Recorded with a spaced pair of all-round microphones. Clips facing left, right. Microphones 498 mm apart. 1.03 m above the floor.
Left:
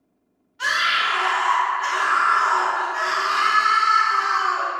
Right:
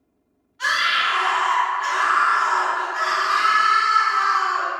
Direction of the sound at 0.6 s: 50° left (ahead or behind).